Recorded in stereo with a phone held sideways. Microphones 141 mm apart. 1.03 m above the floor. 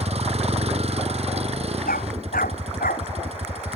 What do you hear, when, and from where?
0.0 s a vehicle: 45° right (ahead or behind)
1.9 s a dog barking: 85° left